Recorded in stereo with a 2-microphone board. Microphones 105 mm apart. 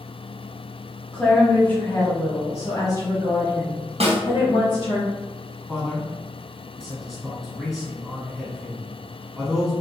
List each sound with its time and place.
1.1 s a woman speaking: 10° left (ahead or behind), 1.3 m; by 5.0 s 45° left (ahead or behind), 2 m
4.0 s a snare drum: 75° right (ahead or behind), 1.6 m
5.7 s a man speaking: centre (ahead or behind), 1.5 m